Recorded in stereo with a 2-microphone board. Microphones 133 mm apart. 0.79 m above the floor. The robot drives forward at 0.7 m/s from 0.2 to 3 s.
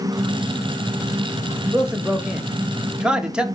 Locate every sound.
1.7 s a man speaking: 5° right (ahead or behind), 0.7 m